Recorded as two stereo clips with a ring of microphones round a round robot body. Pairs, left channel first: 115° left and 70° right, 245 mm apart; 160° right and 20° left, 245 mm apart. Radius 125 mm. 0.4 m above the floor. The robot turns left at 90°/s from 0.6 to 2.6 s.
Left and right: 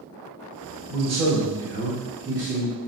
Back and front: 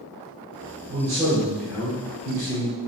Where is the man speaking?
Straight ahead, 1.5 m; by 2.8 s 155° right, 1.5 m.